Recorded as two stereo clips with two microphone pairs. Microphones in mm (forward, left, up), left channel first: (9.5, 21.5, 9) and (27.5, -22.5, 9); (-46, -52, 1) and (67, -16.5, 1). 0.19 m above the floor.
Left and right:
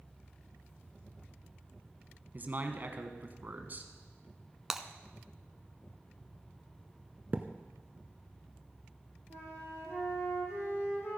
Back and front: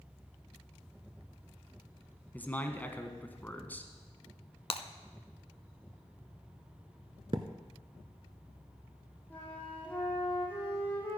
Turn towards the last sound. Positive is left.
turn(degrees=120)